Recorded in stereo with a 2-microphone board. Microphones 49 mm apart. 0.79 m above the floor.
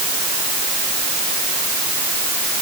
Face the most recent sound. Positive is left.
No sound to turn to.